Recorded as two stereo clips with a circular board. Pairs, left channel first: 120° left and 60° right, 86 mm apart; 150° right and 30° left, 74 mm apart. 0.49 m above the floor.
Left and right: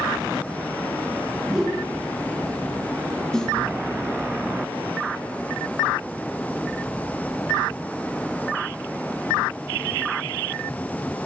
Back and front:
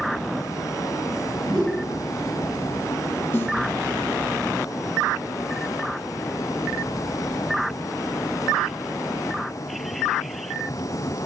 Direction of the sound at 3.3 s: 165° right.